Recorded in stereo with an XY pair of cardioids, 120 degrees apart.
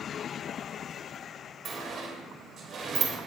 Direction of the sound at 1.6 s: 40° right.